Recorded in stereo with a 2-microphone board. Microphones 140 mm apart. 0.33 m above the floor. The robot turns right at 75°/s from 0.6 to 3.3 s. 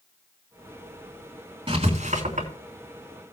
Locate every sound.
1.7 s writing: 40° right (ahead or behind), 3 m; by 2.5 s 60° right (ahead or behind), 3 m